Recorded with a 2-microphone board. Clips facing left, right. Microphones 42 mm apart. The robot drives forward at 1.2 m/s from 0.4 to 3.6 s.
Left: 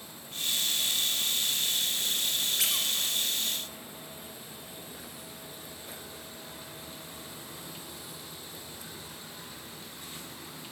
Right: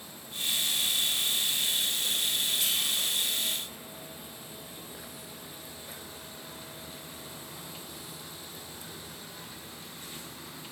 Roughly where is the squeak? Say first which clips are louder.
Even; left.